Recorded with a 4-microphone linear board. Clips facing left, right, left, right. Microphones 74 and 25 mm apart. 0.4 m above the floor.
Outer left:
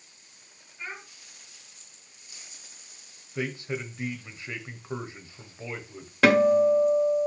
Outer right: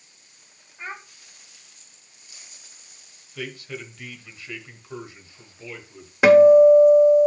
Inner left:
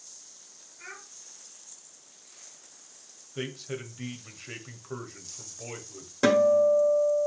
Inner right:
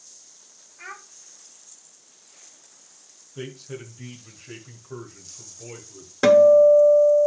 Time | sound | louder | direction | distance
0.8 | a child speaking | outer right 4 dB, inner right 5 dB | 30° right (ahead or behind) | 1.8 m
3.4 | a man speaking | outer left 3 dB, inner left 1 dB | 25° left (ahead or behind) | 1.5 m
6.2 | a guitar | outer right 9 dB, inner right 8 dB | 15° right (ahead or behind) | 1.7 m